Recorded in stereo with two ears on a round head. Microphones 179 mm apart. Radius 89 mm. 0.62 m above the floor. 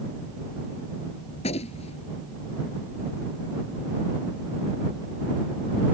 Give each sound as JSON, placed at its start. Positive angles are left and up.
{"t": 1.4, "sound": "a gunshot", "side_deg": 30}